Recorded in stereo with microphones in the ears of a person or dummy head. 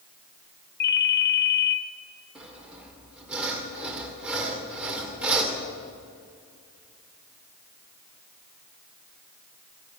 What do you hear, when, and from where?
0.8 s a ringtone: 50° left (ahead or behind), 1.4 m
2.4 s sawing: 5° right (ahead or behind), 1.9 m